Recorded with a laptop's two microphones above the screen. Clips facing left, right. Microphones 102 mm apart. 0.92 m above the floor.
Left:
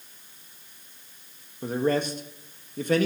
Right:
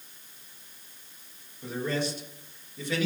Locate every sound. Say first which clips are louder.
1.6 s a man speaking: left 6 dB; 45° left (ahead or behind), 1.4 m